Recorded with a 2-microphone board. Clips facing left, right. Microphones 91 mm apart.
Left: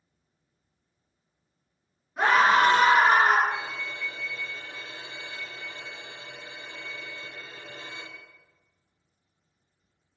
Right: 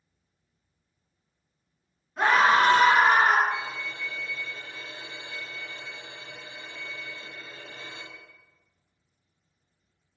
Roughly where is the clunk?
No clunk in this recording.